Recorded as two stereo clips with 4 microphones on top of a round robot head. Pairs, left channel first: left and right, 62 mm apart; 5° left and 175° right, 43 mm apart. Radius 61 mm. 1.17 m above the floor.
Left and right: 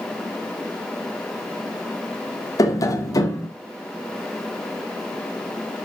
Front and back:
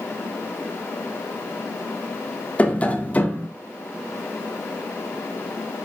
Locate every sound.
2.6 s tapping: 60° left, 2.5 m